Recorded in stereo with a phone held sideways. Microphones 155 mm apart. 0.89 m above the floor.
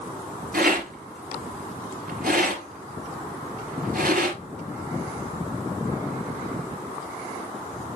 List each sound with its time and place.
0.5 s a rattle: 80° right, 3 m